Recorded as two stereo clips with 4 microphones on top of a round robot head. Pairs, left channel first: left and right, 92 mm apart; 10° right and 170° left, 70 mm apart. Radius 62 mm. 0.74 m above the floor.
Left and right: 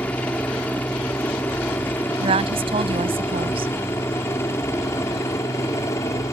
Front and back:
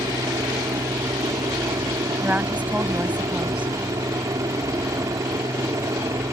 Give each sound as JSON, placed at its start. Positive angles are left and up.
{"t": 0.0, "sound": "a helicopter", "azimuth_deg": 160}
{"t": 2.2, "sound": "a woman speaking", "azimuth_deg": -110}